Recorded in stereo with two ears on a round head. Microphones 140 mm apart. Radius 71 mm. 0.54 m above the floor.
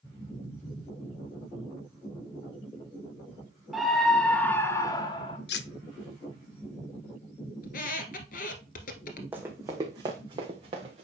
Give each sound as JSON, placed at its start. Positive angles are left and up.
{"t": 3.7, "sound": "a scream", "side_deg": 0, "distance_m": 1.2}
{"t": 5.5, "sound": "cutlery clinking", "side_deg": 75, "distance_m": 0.6}
{"t": 7.6, "sound": "a squeak", "side_deg": 60, "distance_m": 1.4}
{"t": 9.3, "sound": "running footsteps", "side_deg": -10, "distance_m": 1.5}